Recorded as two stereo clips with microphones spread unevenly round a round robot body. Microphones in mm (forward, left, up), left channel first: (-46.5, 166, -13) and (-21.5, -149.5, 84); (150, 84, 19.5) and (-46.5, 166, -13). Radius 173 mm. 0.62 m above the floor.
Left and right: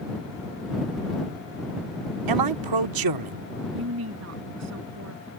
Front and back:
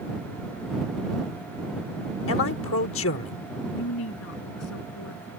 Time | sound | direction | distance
2.3 | a man speaking | 55° right | ?
3.7 | a woman speaking | 35° right | ?